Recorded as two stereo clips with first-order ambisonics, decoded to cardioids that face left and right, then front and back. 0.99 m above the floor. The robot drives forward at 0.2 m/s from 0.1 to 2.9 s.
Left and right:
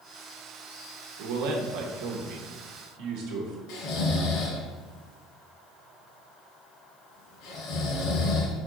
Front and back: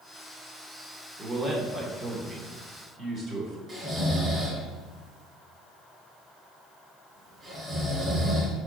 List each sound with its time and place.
1.2 s a man speaking: 100° right, 1.2 m; by 3.6 s 115° right, 1.3 m
3.7 s snoring: 115° left, 2.5 m